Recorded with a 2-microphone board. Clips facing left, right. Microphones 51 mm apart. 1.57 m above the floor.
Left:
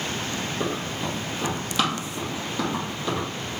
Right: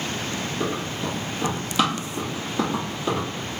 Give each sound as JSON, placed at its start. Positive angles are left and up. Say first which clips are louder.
{"t": 0.6, "sound": "running footsteps", "louder": "right 2 dB", "side_deg": 15, "distance_m": 1.8}